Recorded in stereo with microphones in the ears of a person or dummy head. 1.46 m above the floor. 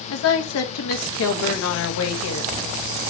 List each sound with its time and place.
0.1 s a woman speaking: 80° left, 1.5 m